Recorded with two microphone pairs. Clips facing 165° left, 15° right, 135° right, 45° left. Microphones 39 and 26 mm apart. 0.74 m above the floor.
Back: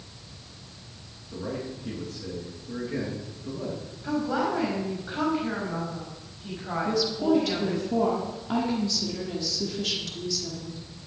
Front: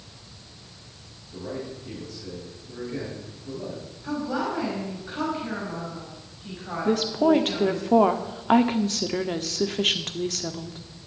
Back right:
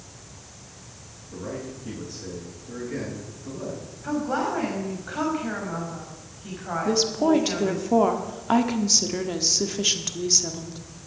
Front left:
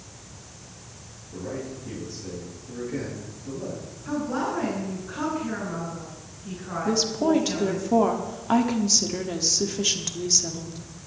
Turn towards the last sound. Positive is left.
turn(degrees=-55)